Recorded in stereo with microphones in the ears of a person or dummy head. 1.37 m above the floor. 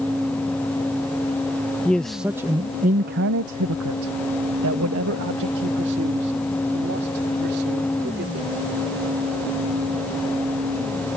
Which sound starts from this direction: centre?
A man speaking, at 1.9 s.